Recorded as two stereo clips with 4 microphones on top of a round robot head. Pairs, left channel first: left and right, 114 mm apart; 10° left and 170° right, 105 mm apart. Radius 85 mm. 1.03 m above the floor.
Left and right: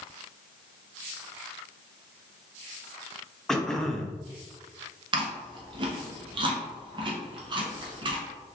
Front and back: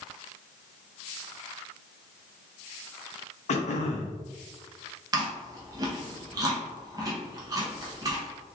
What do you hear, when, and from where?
3.5 s throat clearing: 5° left, 0.6 m
5.1 s chewing: 125° right, 0.8 m